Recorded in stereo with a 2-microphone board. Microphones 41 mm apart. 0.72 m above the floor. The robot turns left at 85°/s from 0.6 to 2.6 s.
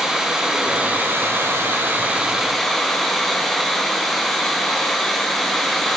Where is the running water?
15° right, 5 m; by 6.0 s 175° left, 5 m.